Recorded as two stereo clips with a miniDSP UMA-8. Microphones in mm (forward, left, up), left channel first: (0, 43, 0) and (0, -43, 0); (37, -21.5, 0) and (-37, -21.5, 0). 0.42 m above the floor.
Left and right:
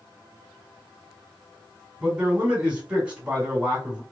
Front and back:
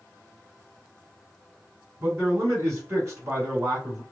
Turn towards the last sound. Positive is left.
turn(degrees=-160)